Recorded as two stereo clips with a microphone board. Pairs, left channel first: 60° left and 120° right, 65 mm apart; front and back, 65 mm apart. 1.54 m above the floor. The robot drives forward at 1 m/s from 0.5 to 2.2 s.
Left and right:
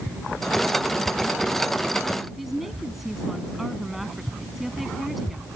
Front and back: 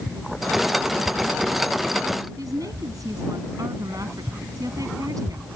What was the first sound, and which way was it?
A woman speaking, 155° left.